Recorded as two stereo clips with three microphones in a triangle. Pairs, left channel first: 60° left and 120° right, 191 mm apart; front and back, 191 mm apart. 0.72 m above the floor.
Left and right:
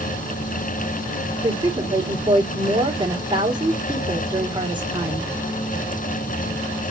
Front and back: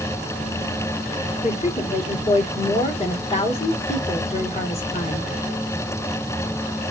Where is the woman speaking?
55° right, 2 m.